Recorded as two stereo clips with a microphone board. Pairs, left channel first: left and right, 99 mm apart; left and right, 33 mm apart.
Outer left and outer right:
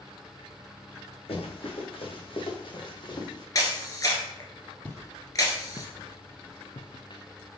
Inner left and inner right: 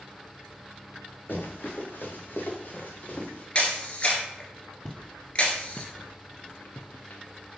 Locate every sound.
1.3 s running footsteps: 70° left (ahead or behind), 2.5 m; by 3.5 s 45° left (ahead or behind), 2.5 m
3.5 s a camera shutter: 35° left (ahead or behind), 1.7 m
4.8 s footsteps: 20° left (ahead or behind), 1.4 m; by 7.6 s 40° left (ahead or behind), 1.4 m